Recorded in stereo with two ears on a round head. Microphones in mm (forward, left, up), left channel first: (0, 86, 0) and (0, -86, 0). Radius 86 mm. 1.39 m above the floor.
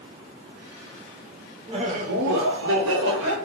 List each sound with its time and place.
1.7 s laughter: 30° right (ahead or behind), 0.8 m; by 3.4 s 75° right (ahead or behind), 1.3 m